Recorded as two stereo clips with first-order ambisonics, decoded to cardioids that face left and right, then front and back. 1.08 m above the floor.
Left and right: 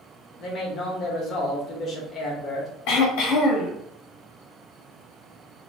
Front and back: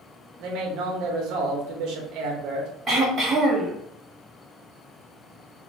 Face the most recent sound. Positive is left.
turn(degrees=110)